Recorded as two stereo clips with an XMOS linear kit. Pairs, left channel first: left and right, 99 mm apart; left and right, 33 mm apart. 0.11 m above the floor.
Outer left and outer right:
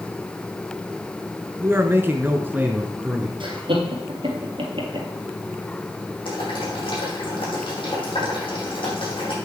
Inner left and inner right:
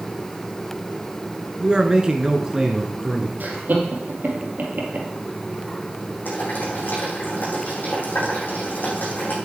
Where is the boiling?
60° left (ahead or behind), 5 m.